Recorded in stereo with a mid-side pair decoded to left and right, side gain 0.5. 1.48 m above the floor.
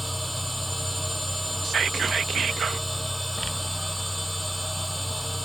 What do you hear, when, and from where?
0.0 s a machine running: straight ahead
1.6 s whispering: 45° right